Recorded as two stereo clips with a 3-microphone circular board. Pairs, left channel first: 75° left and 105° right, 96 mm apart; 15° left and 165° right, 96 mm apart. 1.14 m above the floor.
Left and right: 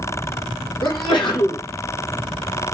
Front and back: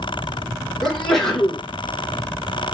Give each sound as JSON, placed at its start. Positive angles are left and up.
{"t": 0.8, "sound": "a sneeze", "azimuth_deg": 100, "distance_m": 2.0}